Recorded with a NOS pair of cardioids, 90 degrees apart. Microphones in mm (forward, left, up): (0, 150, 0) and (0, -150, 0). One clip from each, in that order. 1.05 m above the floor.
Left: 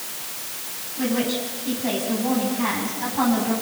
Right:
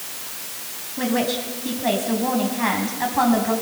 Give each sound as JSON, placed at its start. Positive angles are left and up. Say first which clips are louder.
{"t": 1.0, "sound": "a woman speaking", "louder": "right 2 dB", "azimuth_deg": -60, "distance_m": 9.0}